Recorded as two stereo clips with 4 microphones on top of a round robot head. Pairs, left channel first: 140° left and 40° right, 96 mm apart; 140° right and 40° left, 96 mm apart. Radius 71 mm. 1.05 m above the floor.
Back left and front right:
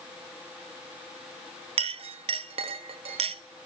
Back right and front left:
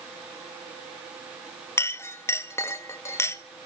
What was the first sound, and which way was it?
A clink, 75° right.